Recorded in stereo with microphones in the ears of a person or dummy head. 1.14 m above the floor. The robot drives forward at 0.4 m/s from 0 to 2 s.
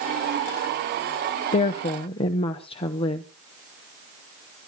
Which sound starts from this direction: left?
A woman speaking, at 1.5 s.